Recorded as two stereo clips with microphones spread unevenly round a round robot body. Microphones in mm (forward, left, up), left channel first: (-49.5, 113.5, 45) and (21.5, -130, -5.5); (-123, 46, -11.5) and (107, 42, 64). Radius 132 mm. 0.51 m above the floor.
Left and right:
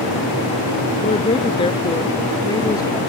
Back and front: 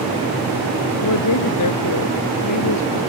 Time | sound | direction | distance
1.0 | a woman speaking | 175° left | ?